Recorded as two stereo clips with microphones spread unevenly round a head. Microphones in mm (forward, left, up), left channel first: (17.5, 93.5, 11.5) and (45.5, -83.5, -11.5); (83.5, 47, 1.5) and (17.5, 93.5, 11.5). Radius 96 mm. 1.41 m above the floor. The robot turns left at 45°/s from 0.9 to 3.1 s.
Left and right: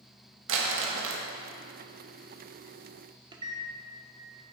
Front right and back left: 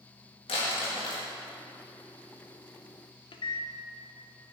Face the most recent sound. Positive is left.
turn(degrees=-15)